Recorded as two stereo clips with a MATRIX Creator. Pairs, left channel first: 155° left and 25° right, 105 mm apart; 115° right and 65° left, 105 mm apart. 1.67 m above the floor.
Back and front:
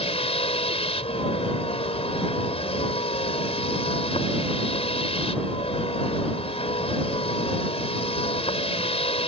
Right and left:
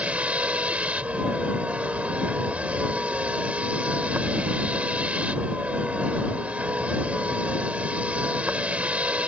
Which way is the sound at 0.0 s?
145° left.